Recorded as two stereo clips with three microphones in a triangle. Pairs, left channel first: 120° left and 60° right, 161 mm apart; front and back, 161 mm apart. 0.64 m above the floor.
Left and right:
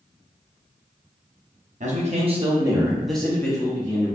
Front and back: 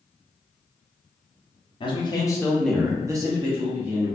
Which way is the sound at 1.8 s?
50° right.